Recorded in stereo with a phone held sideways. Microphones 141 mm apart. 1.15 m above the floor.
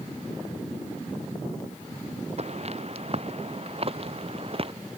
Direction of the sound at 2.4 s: 50° right (ahead or behind).